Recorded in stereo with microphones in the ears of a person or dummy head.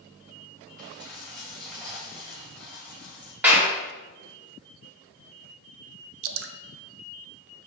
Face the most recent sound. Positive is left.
turn(degrees=-75)  # may be behind; listen again after turning